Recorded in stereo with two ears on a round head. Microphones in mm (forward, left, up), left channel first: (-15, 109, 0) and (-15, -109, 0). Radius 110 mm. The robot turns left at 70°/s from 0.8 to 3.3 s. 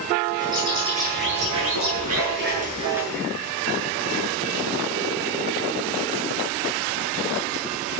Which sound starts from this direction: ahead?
A bird, at 0.4 s.